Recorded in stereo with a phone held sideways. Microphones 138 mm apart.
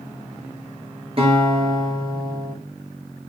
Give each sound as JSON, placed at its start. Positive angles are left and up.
{"t": 1.2, "sound": "a guitar", "side_deg": -45, "distance_m": 6.5}